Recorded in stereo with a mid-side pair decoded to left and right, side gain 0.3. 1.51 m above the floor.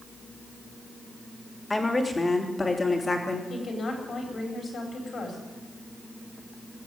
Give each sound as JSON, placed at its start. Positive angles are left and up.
{"t": 1.7, "sound": "a woman speaking", "azimuth_deg": 25, "distance_m": 3.0}
{"t": 3.5, "sound": "a woman speaking", "azimuth_deg": 60, "distance_m": 5.0}